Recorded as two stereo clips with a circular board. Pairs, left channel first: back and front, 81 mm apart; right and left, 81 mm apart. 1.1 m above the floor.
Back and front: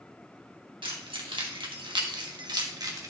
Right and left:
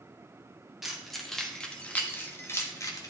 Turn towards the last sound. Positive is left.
turn(degrees=-50)